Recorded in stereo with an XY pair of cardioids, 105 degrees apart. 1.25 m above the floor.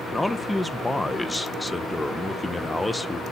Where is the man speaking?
5° left, 0.9 m.